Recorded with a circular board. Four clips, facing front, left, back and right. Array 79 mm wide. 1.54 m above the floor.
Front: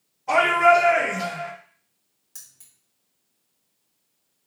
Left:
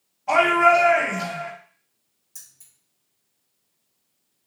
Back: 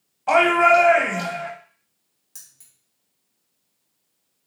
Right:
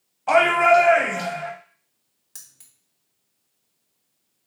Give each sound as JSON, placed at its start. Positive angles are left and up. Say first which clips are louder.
{"t": 0.3, "sound": "a shout", "louder": "right 1 dB, back 1 dB", "azimuth_deg": -140, "distance_m": 2.0}
{"t": 2.4, "sound": "keys jangling", "louder": "right 2 dB, even", "azimuth_deg": -85, "distance_m": 1.4}